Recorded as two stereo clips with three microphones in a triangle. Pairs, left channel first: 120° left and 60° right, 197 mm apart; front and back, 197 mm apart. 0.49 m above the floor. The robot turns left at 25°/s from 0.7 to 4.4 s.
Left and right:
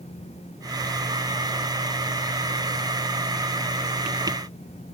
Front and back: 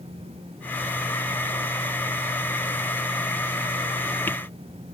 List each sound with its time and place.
Only background noise.